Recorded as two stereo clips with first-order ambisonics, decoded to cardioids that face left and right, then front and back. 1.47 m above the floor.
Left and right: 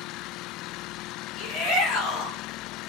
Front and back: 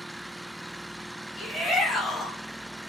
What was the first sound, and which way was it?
A shout, 70° left.